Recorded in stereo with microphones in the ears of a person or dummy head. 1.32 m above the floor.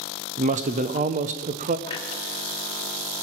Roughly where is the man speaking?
Right.